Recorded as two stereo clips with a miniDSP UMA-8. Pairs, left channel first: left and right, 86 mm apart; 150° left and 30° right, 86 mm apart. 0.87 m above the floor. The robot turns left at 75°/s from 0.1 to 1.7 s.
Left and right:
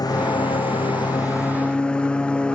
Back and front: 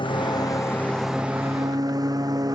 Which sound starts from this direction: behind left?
A lawn mower, at 0.0 s.